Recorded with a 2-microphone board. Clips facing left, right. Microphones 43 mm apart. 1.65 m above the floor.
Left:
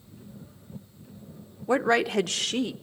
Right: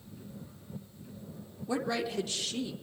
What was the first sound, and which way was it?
A woman speaking, 45° left (ahead or behind).